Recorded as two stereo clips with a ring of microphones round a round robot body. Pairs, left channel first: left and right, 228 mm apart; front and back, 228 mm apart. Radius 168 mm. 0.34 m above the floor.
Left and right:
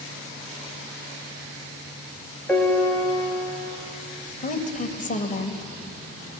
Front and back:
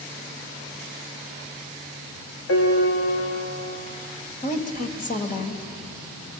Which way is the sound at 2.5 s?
5° left.